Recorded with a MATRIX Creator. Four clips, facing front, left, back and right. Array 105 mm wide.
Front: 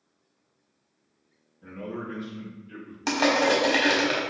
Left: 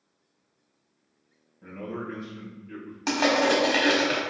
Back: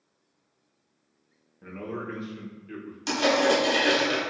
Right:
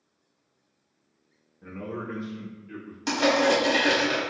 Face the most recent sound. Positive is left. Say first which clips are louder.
# right 1 dB, even
turn(degrees=30)